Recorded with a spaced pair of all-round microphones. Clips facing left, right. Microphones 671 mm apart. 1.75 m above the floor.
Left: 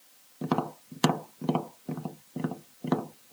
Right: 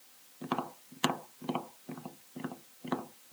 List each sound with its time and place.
0.4 s tapping: 65° left (ahead or behind)